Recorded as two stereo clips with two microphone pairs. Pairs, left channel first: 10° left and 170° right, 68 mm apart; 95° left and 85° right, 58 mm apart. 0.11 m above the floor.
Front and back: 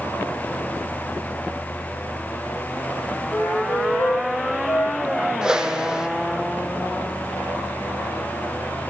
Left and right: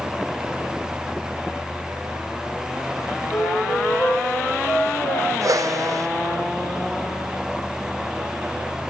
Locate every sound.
3.3 s a flute: 65° left, 3 m
5.4 s a whoosh: 90° right, 0.7 m